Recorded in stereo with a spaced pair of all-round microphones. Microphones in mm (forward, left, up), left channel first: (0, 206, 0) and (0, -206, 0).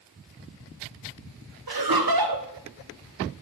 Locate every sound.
1.7 s laughter: 60° right (ahead or behind), 0.8 m